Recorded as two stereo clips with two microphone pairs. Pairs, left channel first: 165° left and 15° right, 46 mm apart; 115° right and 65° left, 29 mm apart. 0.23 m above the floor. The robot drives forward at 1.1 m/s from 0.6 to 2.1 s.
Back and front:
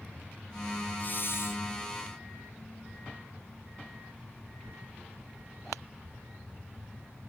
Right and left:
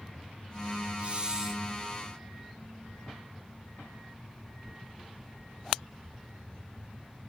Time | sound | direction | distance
1.0 | a hiss | 110° left | 0.8 m